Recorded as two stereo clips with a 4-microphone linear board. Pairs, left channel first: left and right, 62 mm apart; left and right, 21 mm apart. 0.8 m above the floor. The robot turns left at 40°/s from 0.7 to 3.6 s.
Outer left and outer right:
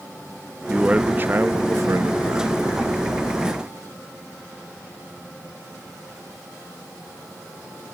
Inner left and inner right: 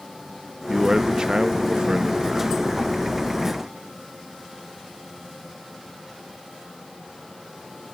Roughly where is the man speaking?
Ahead right.